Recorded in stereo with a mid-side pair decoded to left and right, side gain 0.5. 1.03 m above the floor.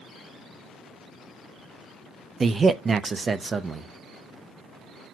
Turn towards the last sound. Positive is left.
turn(degrees=-35)